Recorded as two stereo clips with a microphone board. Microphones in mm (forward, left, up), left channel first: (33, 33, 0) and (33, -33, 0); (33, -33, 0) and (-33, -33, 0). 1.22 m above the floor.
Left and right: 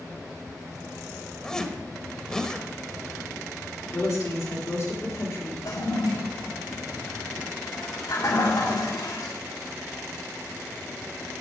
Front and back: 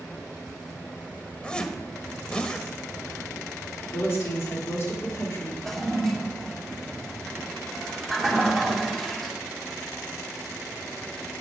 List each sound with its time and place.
1.4 s a zipper: 40° left, 1.0 m
3.8 s a woman speaking: 45° left, 2.5 m
5.7 s a toilet flushing: 85° left, 2.5 m